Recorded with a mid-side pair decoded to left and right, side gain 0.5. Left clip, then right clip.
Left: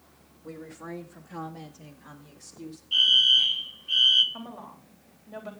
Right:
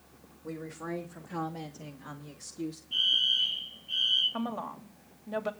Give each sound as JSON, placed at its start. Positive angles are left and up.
{"t": 0.4, "sound": "a woman speaking", "azimuth_deg": -10, "distance_m": 2.0}
{"t": 2.9, "sound": "a fire alarm", "azimuth_deg": 55, "distance_m": 3.0}
{"t": 4.3, "sound": "a woman speaking", "azimuth_deg": -45, "distance_m": 3.0}